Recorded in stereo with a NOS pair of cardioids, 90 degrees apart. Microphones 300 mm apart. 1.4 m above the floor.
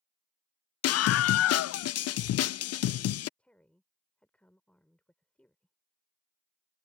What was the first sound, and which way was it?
A scream, 60° left.